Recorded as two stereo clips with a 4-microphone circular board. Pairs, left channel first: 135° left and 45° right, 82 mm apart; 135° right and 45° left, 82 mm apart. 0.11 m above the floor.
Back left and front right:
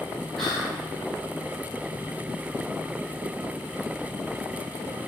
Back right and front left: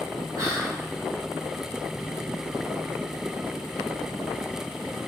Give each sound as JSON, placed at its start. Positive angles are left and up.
{"t": 0.4, "sound": "whispering", "azimuth_deg": 50, "distance_m": 2.0}